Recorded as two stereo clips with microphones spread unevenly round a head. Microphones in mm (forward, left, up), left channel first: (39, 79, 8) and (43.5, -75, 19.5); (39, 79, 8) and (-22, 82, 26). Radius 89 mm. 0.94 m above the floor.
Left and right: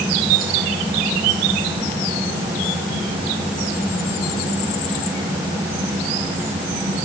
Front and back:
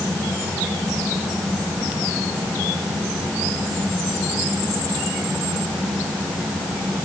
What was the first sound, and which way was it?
Only background noise.